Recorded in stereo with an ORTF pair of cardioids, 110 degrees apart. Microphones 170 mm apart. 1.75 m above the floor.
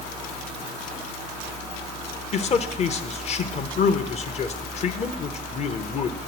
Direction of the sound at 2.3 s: 40° left.